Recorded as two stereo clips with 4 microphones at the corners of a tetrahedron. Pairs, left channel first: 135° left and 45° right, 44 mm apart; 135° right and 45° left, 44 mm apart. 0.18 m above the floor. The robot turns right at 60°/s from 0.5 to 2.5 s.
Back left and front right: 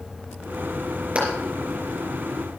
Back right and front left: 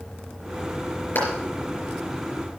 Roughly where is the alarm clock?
I don't hear an alarm clock.